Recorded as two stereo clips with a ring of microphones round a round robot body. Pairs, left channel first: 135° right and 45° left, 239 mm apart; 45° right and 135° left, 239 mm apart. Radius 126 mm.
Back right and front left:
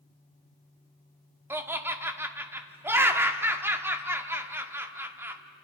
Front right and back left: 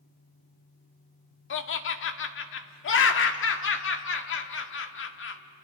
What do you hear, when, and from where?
1.5 s laughter: 35° right, 1.3 m